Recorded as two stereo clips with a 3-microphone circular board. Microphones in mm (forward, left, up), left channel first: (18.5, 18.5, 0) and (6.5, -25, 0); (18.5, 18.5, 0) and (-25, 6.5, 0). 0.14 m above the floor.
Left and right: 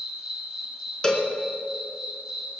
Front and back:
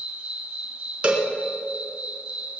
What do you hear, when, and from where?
0.0 s an insect: 160° right, 1.8 m
1.0 s a cowbell: 140° left, 1.8 m